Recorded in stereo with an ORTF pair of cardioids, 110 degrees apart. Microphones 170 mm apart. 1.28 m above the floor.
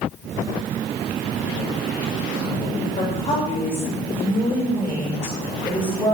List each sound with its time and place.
3.0 s a woman speaking: 40° left, 6 m; by 6.1 s 20° left, 6 m